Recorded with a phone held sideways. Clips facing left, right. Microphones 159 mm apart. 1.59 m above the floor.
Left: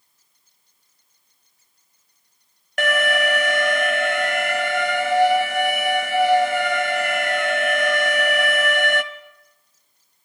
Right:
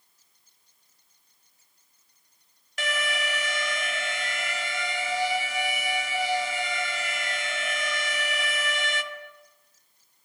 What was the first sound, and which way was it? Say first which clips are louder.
An alarm: left 11 dB; 60° left (ahead or behind).